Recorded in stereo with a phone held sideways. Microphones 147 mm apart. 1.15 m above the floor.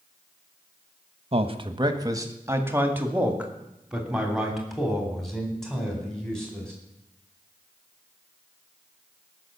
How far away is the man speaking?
About 1.1 m.